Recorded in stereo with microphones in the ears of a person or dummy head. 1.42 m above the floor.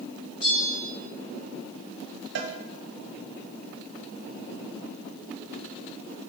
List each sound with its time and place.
0.4 s a bell: 40° left (ahead or behind), 3 m
2.4 s a cowbell: 65° right (ahead or behind), 0.8 m